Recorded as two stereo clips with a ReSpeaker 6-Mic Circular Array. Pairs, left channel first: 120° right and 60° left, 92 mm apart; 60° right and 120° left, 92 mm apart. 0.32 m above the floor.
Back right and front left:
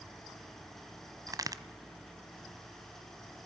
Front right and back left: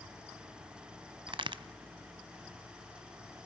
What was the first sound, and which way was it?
A crack, 105° left.